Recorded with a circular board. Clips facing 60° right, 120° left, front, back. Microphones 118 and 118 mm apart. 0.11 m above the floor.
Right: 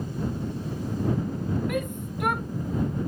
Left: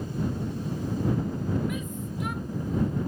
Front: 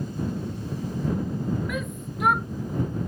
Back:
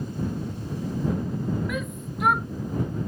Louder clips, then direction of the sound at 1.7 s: Right 4 dB, even; 90° right.